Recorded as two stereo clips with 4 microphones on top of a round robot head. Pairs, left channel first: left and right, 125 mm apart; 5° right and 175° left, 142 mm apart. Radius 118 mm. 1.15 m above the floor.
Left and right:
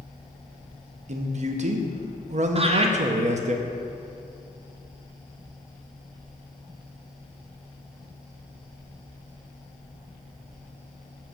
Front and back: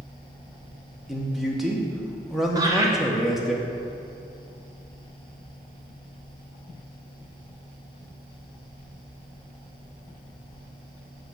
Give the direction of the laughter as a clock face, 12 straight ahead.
4 o'clock.